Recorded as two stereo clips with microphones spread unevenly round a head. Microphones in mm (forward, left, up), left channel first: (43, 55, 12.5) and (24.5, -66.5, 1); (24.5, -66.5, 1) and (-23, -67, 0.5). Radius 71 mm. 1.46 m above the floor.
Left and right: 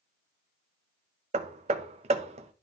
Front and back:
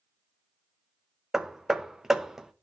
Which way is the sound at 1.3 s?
100° right.